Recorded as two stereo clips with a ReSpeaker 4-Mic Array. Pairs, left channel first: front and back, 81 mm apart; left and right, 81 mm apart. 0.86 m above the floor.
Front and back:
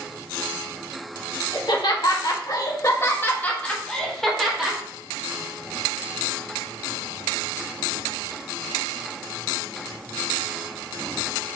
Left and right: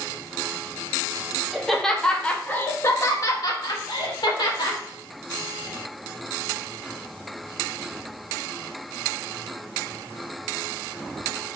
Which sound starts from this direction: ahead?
Laughter, at 1.5 s.